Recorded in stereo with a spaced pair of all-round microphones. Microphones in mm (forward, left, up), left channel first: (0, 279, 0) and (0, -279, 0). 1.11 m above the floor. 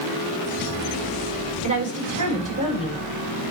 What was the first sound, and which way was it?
A woman speaking, 35° right (ahead or behind).